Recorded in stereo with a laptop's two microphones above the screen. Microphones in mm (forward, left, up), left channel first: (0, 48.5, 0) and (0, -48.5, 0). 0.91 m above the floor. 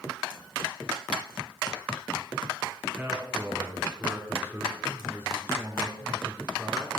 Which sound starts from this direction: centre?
A man speaking, at 3.0 s.